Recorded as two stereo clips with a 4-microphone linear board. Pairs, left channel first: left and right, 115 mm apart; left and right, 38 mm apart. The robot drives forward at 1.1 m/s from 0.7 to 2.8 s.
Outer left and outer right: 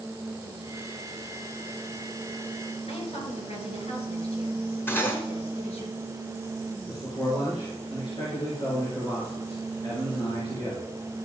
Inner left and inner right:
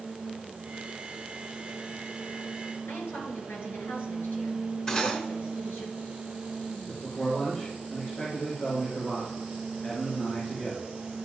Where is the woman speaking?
70° left (ahead or behind), 3.5 m.